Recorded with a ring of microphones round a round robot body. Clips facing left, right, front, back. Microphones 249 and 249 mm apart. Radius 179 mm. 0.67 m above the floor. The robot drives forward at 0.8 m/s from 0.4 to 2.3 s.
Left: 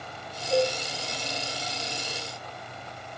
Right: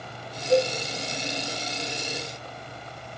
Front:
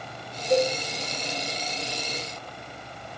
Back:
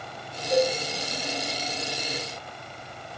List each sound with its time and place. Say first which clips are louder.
0.5 s a cowbell: right 3 dB, front 1 dB; 65° right, 2.5 m; by 0.7 s 70° right, 2.5 m